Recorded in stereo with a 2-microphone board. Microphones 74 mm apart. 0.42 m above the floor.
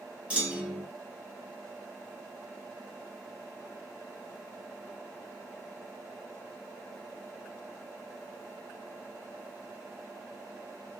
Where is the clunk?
15° right (ahead or behind), 1.3 m.